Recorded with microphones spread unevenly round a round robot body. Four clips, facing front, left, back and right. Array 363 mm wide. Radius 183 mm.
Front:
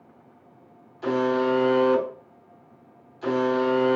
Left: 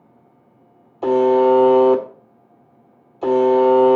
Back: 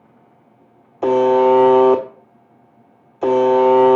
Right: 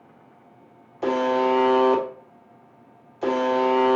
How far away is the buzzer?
About 1.2 m.